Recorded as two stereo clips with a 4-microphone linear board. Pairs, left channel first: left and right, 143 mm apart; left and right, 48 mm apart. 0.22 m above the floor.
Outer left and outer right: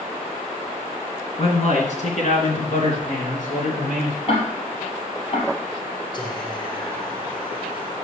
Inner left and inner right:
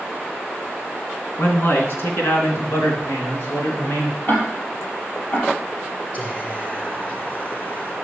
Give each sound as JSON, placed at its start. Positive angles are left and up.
{"t": 1.4, "sound": "a man speaking", "side_deg": 50, "distance_m": 2.5}
{"t": 4.3, "sound": "ticking", "side_deg": 50, "distance_m": 3.5}
{"t": 6.1, "sound": "whispering", "side_deg": 35, "distance_m": 3.0}